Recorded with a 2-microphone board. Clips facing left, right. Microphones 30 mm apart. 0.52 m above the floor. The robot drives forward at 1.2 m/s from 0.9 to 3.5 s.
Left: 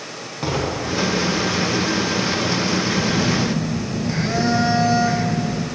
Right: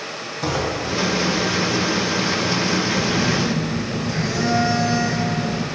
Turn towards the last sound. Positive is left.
turn(degrees=40)  # may be behind; listen again after turning